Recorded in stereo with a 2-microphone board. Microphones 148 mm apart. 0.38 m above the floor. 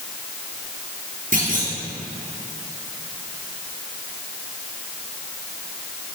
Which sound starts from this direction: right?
A clunk, at 1.3 s.